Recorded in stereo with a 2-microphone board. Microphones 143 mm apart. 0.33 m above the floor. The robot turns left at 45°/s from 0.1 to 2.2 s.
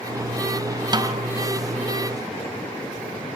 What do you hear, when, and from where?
0.9 s a snare drum: 30° right (ahead or behind), 2 m; by 1.2 s 40° right (ahead or behind), 2 m